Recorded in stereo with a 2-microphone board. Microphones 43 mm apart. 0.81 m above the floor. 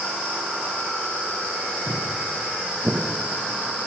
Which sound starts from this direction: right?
Footsteps, at 1.9 s.